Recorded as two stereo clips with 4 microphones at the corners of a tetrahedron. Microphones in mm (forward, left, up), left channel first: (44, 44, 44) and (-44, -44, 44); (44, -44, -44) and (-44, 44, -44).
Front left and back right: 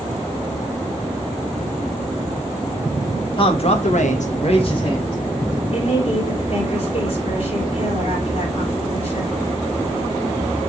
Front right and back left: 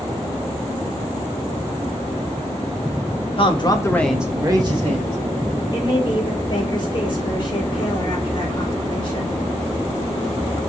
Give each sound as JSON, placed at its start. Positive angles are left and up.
{"t": 3.4, "sound": "a man speaking", "azimuth_deg": -5, "distance_m": 1.6}
{"t": 5.7, "sound": "a woman speaking", "azimuth_deg": 5, "distance_m": 3.5}